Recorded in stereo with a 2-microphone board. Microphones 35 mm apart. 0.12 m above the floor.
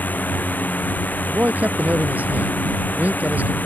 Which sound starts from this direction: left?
A drone, at 0.0 s.